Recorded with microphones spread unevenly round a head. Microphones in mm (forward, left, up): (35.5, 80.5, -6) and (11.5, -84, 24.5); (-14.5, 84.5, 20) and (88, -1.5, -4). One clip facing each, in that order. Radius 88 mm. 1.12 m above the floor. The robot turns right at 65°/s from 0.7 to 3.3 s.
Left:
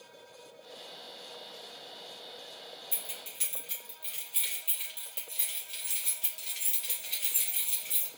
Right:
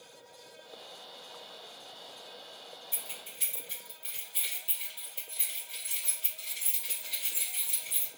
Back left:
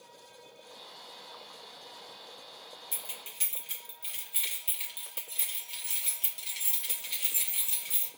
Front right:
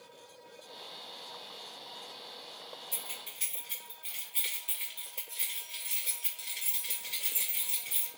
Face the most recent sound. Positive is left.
turn(degrees=140)